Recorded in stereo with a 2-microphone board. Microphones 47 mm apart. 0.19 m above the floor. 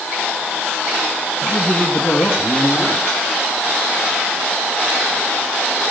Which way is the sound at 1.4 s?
30° left (ahead or behind).